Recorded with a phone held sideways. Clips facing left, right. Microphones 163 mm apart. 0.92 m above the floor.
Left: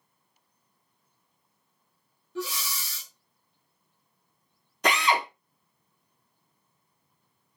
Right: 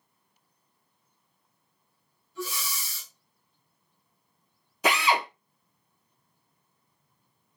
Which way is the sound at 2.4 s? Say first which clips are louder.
Left 2 dB; 65° left (ahead or behind).